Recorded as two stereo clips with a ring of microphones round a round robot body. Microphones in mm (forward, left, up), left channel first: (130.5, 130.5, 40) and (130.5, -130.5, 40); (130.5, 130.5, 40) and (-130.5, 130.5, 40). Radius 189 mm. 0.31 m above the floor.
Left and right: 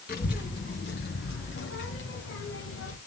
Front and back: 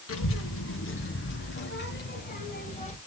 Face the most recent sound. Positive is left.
turn(degrees=65)